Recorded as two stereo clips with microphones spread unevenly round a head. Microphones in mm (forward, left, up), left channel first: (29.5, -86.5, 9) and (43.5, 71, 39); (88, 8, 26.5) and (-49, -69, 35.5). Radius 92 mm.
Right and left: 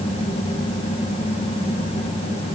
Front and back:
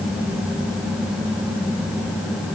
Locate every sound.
Only background noise.